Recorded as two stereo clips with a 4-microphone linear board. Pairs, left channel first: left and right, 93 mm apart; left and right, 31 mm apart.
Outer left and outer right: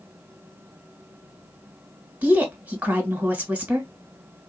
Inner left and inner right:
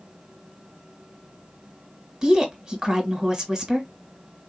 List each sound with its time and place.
2.2 s a woman speaking: 15° right (ahead or behind), 1.3 m